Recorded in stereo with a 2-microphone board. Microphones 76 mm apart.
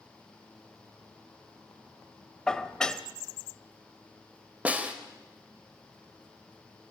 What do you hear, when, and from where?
2.5 s dishes clattering: 10° left (ahead or behind), 0.9 m
4.7 s a snare drum: 20° right (ahead or behind), 2.0 m